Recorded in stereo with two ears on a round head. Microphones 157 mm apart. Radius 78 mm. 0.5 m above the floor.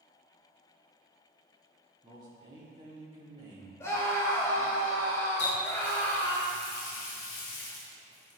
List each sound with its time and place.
2.0 s a man speaking: 25° right (ahead or behind), 1.2 m
3.8 s a scream: 15° left (ahead or behind), 1.8 m
5.4 s a running tap: 75° left (ahead or behind), 2.5 m